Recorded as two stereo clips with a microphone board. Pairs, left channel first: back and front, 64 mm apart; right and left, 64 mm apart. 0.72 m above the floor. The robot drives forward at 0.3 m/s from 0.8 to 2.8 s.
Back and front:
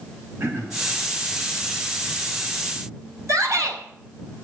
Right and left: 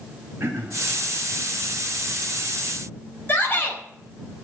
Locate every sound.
0.4 s throat clearing: 45° left, 2.5 m
3.3 s a shout: 35° right, 4.5 m